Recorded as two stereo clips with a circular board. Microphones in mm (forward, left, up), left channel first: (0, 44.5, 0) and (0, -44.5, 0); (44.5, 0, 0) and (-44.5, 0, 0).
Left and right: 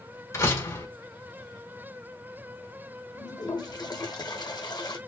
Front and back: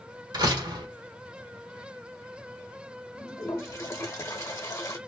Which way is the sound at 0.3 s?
145° left.